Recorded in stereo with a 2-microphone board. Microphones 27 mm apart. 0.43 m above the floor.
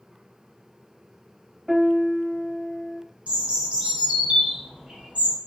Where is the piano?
10° right (ahead or behind), 0.9 m.